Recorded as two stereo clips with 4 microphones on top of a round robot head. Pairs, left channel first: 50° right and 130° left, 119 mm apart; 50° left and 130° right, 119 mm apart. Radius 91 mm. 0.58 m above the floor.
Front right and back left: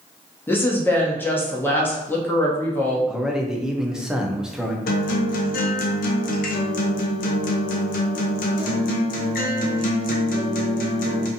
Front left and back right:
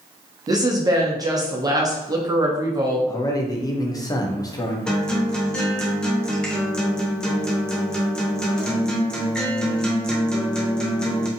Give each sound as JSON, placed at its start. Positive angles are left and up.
{"t": 0.5, "sound": "a woman speaking", "azimuth_deg": -110, "distance_m": 0.7}
{"t": 3.1, "sound": "a man speaking", "azimuth_deg": 50, "distance_m": 0.6}
{"t": 4.9, "sound": "a guitar", "azimuth_deg": -35, "distance_m": 0.5}